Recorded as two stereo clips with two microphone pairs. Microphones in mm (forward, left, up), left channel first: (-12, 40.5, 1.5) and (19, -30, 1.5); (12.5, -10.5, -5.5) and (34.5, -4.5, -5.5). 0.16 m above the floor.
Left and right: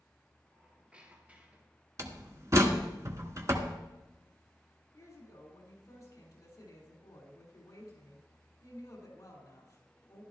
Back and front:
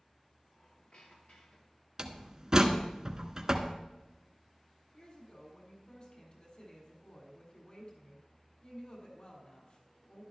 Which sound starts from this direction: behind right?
A squeak, at 0.5 s.